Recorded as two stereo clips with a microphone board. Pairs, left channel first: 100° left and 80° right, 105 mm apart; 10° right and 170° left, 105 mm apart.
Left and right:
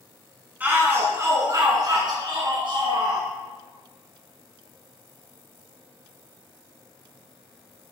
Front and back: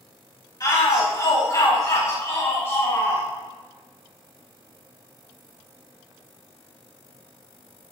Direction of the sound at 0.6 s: 20° right.